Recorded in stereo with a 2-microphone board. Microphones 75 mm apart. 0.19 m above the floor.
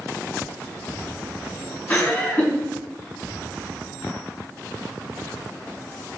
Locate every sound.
1.9 s laughter: 25° left (ahead or behind), 1.1 m